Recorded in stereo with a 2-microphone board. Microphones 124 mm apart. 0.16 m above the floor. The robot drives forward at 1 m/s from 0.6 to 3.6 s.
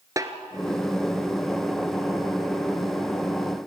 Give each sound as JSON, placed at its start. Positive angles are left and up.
{"t": 0.2, "sound": "a snare drum", "side_deg": -30, "distance_m": 1.3}